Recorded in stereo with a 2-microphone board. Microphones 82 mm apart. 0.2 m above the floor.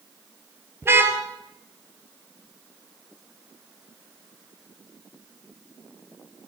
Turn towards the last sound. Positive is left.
turn(degrees=-25)  # may be behind; listen again after turning